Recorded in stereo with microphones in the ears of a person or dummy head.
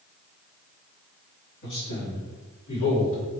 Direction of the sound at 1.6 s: 60° left (ahead or behind).